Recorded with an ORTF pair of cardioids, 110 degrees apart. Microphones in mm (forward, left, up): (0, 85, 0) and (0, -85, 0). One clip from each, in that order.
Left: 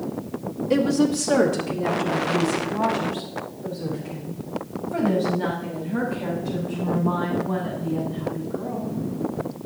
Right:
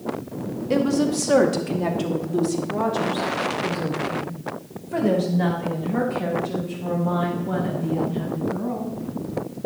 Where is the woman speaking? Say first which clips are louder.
Left 1 dB; 5° right, 2.0 m; by 8.9 s 70° right, 8 m.